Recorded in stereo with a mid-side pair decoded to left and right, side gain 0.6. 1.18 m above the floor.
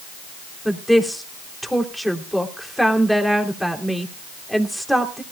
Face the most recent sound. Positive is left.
turn(degrees=0)